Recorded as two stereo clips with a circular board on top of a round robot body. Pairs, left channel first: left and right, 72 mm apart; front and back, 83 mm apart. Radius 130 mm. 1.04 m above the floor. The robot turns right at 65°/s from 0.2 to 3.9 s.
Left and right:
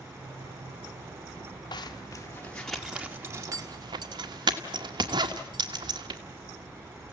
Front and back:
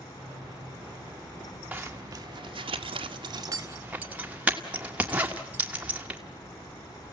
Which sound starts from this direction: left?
A zipper, at 1.7 s.